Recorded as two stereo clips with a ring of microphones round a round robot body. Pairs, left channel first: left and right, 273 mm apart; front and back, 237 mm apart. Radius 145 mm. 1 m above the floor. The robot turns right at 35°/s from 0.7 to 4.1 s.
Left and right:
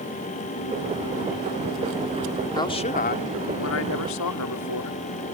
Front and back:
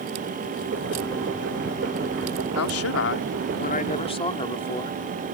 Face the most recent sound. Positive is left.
turn(degrees=65)